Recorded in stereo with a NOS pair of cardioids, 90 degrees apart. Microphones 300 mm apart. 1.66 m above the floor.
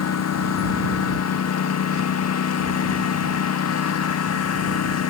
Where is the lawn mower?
55° left.